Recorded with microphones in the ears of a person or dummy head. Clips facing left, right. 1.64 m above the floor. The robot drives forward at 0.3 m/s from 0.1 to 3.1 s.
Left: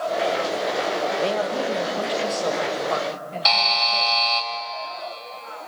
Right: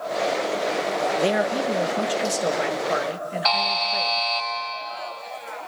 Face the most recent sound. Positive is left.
turn(degrees=15)  # may be behind; listen again after turning